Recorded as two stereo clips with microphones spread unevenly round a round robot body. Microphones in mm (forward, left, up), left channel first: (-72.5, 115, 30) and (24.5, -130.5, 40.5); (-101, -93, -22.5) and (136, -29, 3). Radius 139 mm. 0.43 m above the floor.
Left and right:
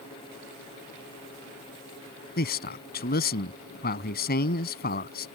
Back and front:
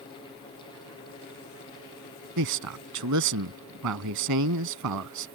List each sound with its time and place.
2.4 s a man speaking: 55° left